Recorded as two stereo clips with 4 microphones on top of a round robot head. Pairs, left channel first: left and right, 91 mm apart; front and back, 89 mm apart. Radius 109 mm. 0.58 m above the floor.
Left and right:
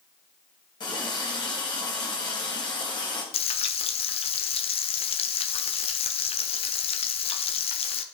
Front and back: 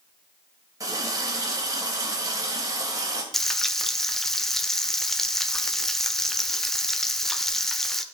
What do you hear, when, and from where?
0.8 s a running tap: 130° left, 1.7 m
3.3 s frying: 85° left, 0.7 m